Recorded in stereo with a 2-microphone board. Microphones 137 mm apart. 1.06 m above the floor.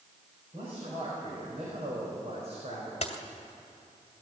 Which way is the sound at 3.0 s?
50° left (ahead or behind).